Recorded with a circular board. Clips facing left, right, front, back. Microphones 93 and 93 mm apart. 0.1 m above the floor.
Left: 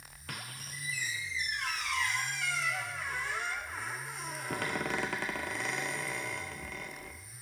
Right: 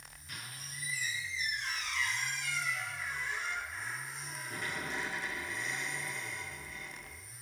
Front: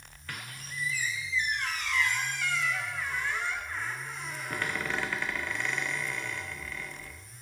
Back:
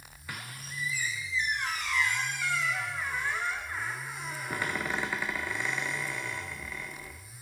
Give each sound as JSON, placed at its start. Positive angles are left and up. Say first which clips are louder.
{"t": 0.3, "sound": "a squeak", "louder": "left 4 dB, even", "azimuth_deg": 100, "distance_m": 0.7}